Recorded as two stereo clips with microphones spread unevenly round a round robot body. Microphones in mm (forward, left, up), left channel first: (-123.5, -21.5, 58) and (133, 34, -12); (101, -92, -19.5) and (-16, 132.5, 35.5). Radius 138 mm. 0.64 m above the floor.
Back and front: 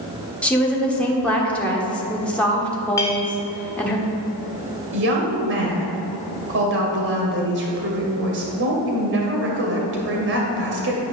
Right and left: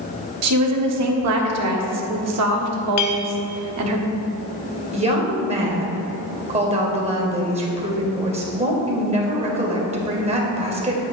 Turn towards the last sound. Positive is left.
turn(degrees=50)